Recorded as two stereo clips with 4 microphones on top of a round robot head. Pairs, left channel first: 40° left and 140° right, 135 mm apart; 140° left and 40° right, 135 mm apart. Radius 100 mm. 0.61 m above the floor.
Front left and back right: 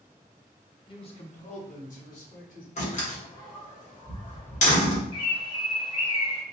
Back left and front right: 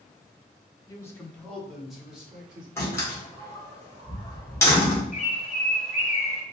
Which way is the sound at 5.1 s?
100° left.